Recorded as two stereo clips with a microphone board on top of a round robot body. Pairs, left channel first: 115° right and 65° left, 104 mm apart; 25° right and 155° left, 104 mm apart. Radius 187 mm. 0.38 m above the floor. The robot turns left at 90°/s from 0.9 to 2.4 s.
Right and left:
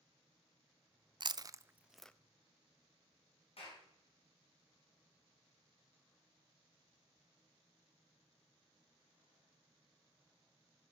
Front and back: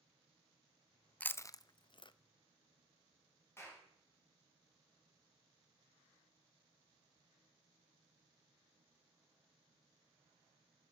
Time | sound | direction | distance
1.2 | chewing | 50° left | 0.6 m
3.6 | a clap | 90° right | 5 m